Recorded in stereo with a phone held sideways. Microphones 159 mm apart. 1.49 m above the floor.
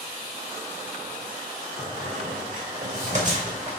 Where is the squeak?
50° right (ahead or behind), 2.5 m.